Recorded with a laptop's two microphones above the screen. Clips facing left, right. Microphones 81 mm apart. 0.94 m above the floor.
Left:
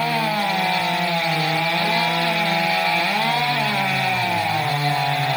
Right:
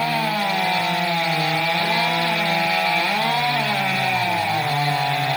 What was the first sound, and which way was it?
Only background noise.